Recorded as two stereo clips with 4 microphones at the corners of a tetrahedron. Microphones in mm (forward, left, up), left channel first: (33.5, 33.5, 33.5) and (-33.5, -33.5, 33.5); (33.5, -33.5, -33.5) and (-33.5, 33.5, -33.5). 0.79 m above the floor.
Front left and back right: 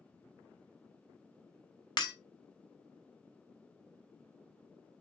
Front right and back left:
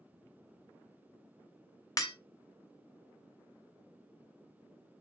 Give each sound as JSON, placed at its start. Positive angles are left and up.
{"t": 2.0, "sound": "breaking glass", "azimuth_deg": 5, "distance_m": 1.4}